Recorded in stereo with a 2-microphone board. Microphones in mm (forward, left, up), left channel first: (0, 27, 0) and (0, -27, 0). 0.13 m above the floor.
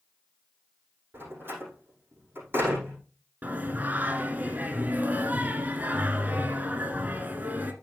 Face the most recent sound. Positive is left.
turn(degrees=-30)  # may be behind; listen again after turning